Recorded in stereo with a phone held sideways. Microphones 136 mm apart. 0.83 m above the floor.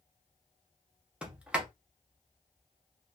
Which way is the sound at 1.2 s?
5° right (ahead or behind).